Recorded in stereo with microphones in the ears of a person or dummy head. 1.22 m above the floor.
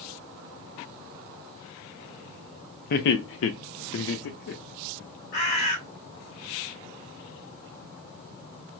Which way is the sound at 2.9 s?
55° left (ahead or behind).